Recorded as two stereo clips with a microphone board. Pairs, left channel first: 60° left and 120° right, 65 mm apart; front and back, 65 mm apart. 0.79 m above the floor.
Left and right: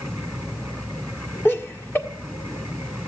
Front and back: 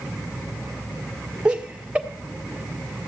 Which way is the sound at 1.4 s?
110° left.